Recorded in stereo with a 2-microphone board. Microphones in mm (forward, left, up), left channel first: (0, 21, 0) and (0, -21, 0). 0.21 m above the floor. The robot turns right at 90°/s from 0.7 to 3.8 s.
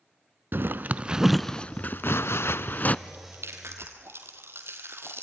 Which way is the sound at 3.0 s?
40° right (ahead or behind).